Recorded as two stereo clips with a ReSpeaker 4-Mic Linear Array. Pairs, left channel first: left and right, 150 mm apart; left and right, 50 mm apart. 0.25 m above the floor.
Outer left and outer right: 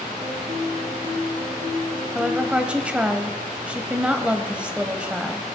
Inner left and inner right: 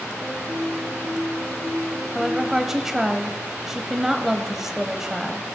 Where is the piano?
60° right (ahead or behind), 4.5 m.